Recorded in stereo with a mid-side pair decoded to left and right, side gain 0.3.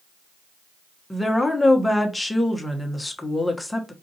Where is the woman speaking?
20° left, 1.2 m.